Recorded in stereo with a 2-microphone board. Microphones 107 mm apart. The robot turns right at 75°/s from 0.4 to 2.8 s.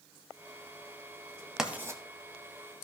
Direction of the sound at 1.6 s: 5° right (ahead or behind).